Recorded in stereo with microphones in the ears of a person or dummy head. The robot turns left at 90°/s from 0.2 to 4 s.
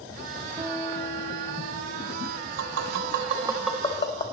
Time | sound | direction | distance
0.6 | a guitar | 160° right | 0.5 m
2.6 | tapping | 80° right | 0.8 m